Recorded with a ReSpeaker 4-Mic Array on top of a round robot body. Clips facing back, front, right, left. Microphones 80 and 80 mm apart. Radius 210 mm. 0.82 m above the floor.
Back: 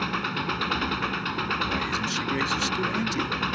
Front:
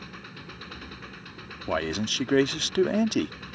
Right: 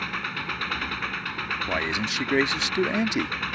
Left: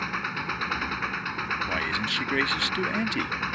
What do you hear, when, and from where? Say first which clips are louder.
0.0 s an engine running: back 15 dB, left 1 dB; 170° left
1.7 s a man speaking: even, right 1 dB; 20° right